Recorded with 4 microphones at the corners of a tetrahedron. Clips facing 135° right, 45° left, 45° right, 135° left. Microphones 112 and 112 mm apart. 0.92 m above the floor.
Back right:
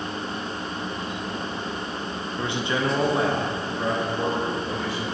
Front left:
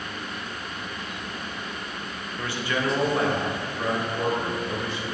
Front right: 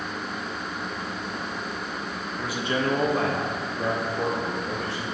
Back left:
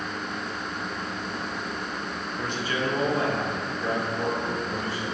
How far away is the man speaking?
About 0.5 m.